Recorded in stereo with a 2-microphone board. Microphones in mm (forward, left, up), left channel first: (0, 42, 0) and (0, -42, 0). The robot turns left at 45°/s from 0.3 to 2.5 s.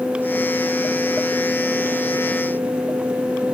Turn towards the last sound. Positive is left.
No sound to turn to.